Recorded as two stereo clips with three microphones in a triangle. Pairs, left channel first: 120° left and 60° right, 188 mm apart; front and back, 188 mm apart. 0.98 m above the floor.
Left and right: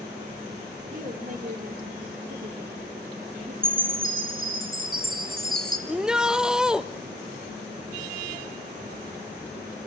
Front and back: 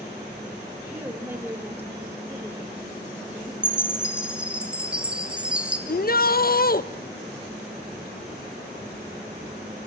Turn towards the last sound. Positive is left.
turn(degrees=25)